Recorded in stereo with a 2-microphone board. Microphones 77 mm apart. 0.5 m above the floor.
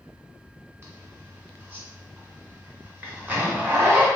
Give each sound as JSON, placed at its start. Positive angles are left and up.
{"t": 0.8, "sound": "a zipper", "side_deg": -30, "distance_m": 1.2}